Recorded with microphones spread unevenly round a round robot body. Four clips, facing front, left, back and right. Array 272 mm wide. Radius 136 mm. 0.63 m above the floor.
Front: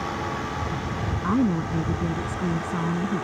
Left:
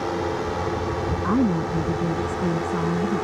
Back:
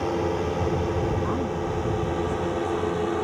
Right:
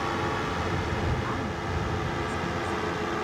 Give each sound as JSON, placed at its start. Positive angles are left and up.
{"t": 0.0, "sound": "a drone", "azimuth_deg": 145}
{"t": 1.2, "sound": "a woman speaking", "azimuth_deg": 60}